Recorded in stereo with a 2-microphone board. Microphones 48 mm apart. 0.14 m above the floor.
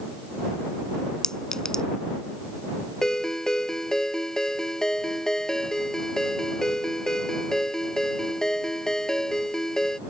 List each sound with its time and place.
1.2 s a clink: 10° left (ahead or behind)
3.0 s a ringtone: 10° left (ahead or behind)